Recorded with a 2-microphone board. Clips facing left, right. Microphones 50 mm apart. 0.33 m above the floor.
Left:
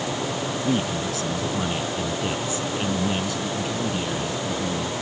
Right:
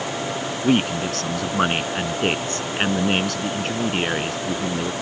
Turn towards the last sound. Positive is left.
turn(degrees=-55)  # may be behind; listen again after turning